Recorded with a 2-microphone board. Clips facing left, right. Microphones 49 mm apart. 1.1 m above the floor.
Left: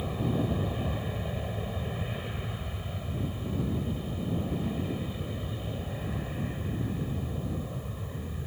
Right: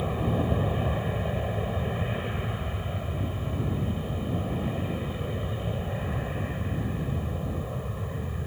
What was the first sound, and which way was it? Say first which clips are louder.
An aircraft: right 3 dB; 20° right (ahead or behind).